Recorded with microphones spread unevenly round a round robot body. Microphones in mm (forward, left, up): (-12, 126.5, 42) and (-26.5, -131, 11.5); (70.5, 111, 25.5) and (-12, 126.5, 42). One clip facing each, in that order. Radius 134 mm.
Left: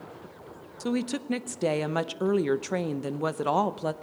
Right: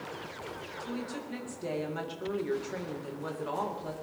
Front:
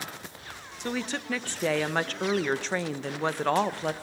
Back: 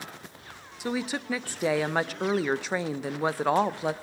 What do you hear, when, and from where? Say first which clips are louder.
0.8 s a woman speaking: left 10 dB, back 2 dB; 85° left, 0.6 m